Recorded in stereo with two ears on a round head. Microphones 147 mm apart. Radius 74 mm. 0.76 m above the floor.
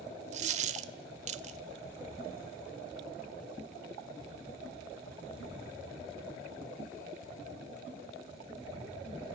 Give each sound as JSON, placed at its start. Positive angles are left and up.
{"t": 0.3, "sound": "a dropped coin", "side_deg": -45, "distance_m": 1.4}